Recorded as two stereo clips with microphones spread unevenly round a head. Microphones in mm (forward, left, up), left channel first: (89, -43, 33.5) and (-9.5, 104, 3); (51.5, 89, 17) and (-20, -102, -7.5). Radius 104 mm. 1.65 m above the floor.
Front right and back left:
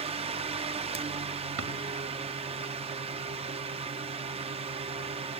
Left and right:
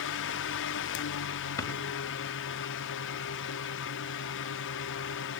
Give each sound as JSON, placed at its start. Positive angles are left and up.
{"t": 0.0, "sound": "a fan", "azimuth_deg": 85, "distance_m": 0.8}
{"t": 1.6, "sound": "a drawer", "azimuth_deg": 140, "distance_m": 4.0}